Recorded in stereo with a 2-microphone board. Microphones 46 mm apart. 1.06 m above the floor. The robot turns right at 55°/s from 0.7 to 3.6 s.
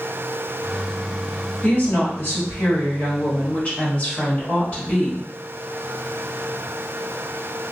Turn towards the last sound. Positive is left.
turn(degrees=150)